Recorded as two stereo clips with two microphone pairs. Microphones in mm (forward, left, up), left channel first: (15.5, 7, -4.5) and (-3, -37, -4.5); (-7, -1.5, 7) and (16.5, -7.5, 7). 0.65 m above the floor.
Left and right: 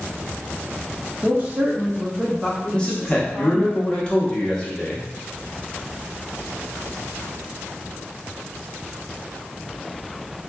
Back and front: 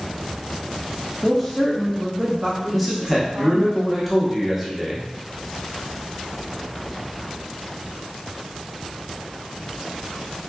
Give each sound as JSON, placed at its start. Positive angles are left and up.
{"t": 1.2, "sound": "a woman speaking", "azimuth_deg": -115, "distance_m": 0.9}
{"t": 2.7, "sound": "a man speaking", "azimuth_deg": 65, "distance_m": 0.9}